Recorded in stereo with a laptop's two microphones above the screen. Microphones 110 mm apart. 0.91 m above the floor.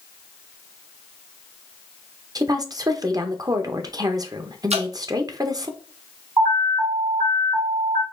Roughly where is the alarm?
Right.